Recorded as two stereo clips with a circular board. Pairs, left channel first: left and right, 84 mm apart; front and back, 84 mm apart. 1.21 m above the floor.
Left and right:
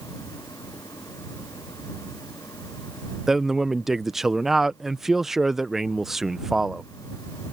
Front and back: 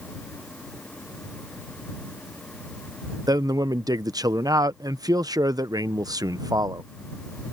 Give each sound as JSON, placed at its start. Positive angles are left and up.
{"t": 3.3, "sound": "a man speaking", "azimuth_deg": -175}